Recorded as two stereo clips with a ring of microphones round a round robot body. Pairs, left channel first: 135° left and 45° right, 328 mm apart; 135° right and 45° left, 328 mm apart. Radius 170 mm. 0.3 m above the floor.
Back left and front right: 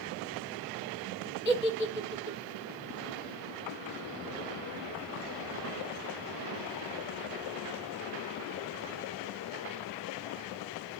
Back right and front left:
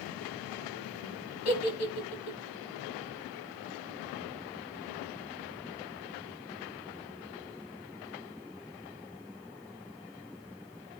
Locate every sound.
1.4 s a giggle: 175° right, 2 m